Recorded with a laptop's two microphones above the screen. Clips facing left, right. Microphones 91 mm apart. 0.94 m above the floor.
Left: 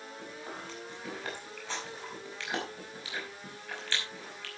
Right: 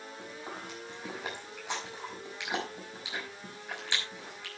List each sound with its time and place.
0.2 s chewing: 20° right (ahead or behind), 5.5 m